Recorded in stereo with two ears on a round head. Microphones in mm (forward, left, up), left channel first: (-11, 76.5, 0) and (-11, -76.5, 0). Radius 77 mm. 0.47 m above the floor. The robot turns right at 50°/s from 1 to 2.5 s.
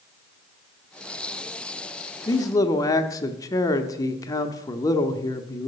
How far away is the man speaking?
About 0.7 m.